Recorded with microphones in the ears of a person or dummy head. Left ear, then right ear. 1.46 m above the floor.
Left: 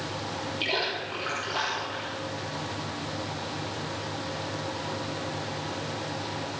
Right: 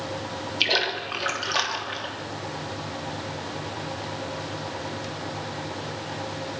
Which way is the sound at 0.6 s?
60° right (ahead or behind).